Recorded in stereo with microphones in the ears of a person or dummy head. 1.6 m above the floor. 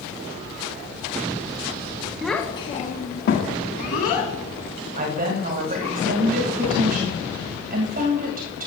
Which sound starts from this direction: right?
A woman speaking, at 5.0 s.